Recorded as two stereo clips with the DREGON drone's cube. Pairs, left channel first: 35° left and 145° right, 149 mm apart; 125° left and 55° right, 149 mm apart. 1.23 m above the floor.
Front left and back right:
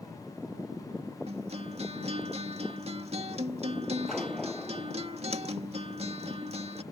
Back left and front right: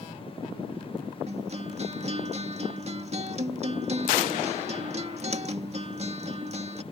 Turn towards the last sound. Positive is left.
turn(degrees=-100)